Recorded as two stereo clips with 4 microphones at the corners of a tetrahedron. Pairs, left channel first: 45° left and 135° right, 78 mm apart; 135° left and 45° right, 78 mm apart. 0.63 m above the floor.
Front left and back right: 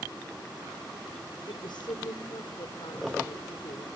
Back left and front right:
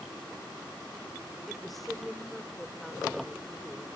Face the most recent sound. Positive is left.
turn(degrees=45)